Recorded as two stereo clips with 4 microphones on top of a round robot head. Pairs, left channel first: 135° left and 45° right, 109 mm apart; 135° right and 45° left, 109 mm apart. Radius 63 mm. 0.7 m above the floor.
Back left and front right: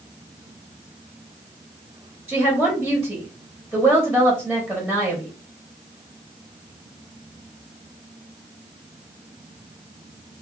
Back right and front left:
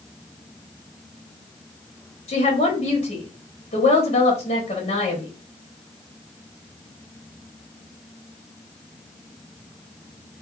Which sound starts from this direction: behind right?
A woman speaking, at 2.3 s.